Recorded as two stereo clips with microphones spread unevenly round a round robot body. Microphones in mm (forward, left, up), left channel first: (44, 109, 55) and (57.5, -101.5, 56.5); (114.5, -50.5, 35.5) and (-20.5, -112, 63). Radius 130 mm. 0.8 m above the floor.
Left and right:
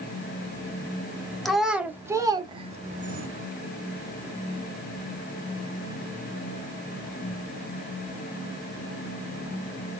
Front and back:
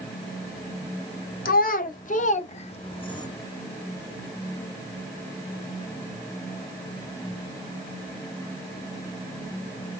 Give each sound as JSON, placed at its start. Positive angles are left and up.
{"t": 1.4, "sound": "a child speaking", "azimuth_deg": 5, "distance_m": 1.3}